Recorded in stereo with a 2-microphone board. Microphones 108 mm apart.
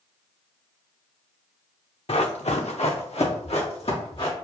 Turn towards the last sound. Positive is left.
turn(degrees=60)  # may be behind; listen again after turning